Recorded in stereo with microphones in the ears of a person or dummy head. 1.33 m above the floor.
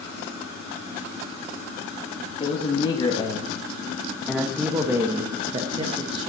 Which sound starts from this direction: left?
A man speaking, at 2.4 s.